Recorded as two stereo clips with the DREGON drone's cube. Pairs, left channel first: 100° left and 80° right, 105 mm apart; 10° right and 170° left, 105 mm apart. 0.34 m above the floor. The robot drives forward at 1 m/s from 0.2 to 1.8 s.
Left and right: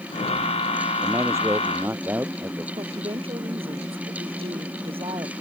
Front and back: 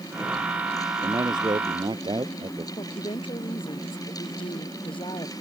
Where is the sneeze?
No sneeze in this recording.